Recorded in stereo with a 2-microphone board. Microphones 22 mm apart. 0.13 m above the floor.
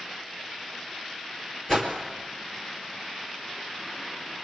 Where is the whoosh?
25° left (ahead or behind), 3 m.